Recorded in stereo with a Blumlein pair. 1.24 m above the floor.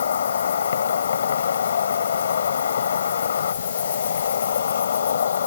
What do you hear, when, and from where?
0.0 s an insect: 70° left